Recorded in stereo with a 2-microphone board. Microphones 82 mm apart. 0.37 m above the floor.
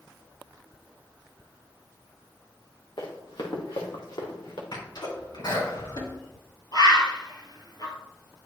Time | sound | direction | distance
3.0 | running footsteps | 80° left | 2.5 m
4.7 | a sneeze | 60° left (ahead or behind) | 3.5 m
6.7 | a bird | 50° left (ahead or behind) | 1.5 m